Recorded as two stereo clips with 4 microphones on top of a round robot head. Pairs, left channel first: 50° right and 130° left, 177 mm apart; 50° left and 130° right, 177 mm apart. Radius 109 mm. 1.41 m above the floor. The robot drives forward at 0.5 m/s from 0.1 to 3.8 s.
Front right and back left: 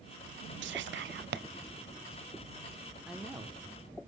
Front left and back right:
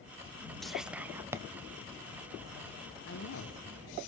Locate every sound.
0.6 s whispering: 140° left, 0.6 m; by 1.4 s 155° left, 1.0 m
3.1 s a woman speaking: 40° left, 1.0 m; by 3.6 s 55° left, 0.9 m